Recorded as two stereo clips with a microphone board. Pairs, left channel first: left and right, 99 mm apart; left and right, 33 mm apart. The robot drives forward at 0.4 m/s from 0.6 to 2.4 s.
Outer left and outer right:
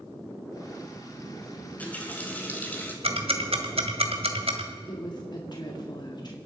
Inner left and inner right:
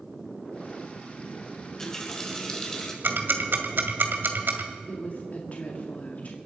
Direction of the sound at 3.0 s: 75° right (ahead or behind).